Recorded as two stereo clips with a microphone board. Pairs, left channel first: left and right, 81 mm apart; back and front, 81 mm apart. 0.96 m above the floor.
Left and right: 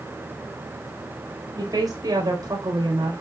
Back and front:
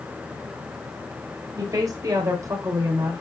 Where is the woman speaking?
45° right, 5 m; by 3.2 s 55° right, 4 m.